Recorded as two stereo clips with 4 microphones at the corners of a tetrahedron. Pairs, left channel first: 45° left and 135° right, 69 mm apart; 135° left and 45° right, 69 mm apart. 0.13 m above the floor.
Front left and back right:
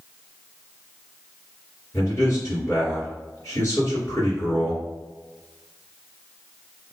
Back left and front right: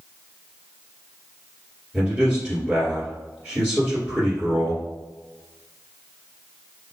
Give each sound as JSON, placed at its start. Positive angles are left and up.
{"t": 1.9, "sound": "a man speaking", "azimuth_deg": 30, "distance_m": 2.0}